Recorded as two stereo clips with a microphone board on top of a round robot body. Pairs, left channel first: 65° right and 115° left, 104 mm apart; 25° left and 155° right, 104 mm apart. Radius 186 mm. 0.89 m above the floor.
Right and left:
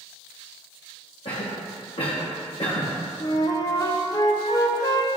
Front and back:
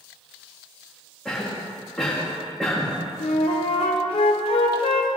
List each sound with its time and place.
1.2 s a cough: 60° right, 1.2 m
3.2 s a flute: 10° right, 0.6 m